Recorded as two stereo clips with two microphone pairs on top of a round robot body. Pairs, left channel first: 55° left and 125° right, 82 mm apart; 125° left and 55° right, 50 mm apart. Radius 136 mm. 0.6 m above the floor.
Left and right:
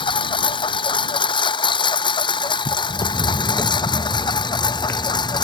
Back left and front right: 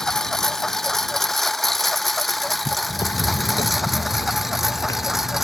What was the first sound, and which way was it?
A lawn mower, 40° left.